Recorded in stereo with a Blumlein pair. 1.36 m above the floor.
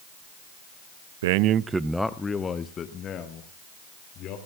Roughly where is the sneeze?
I don't hear a sneeze.